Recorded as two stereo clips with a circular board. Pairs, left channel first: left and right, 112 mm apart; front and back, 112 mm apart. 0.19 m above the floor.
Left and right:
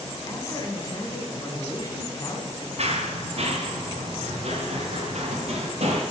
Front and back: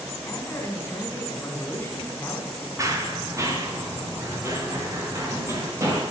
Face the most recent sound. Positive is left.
turn(degrees=-115)